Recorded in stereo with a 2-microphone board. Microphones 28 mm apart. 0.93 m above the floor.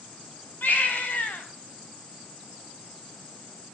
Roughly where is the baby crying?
Left.